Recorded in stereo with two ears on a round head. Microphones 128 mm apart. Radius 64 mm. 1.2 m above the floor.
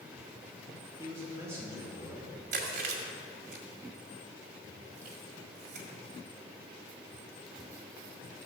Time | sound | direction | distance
1.0 | a man speaking | 15° right (ahead or behind) | 2.5 m
2.5 | chewing | 70° right (ahead or behind) | 2 m